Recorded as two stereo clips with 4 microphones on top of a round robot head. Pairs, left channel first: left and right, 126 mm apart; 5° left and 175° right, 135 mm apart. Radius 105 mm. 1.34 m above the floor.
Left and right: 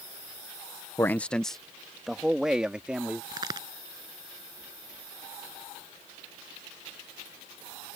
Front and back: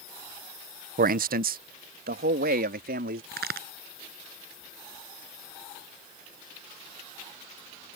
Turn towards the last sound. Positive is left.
turn(degrees=-160)